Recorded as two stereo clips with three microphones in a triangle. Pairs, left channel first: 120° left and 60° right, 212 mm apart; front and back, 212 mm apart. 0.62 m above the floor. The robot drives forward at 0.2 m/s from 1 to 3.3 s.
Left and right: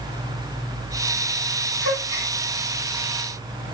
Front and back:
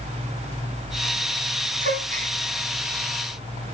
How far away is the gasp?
About 2.5 m.